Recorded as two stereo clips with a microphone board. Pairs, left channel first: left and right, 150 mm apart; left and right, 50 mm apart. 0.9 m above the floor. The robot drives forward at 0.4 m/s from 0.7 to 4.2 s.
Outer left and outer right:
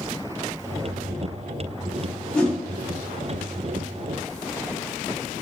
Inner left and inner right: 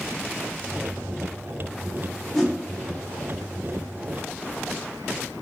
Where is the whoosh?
10° left (ahead or behind), 1.0 m; by 2.6 s 5° left (ahead or behind), 1.1 m.